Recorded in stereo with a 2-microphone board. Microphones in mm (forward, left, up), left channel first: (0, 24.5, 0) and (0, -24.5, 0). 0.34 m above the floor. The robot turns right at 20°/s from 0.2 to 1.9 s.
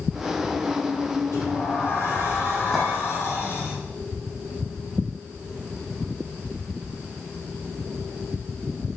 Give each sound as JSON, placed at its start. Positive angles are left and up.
{"t": 1.3, "sound": "a sliding door", "side_deg": 60, "distance_m": 4.5}
{"t": 2.7, "sound": "a clink", "side_deg": 0, "distance_m": 2.5}